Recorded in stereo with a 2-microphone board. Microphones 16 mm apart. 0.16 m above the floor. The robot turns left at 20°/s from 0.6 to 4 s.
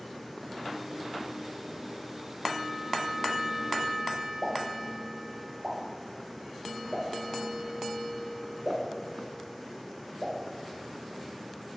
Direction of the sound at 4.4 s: 50° right (ahead or behind).